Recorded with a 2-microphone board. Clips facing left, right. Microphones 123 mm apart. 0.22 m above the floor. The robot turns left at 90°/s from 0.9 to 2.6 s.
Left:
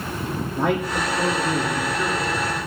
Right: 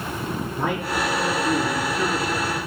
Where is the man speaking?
90° left, 8 m; by 2.5 s 55° right, 8 m.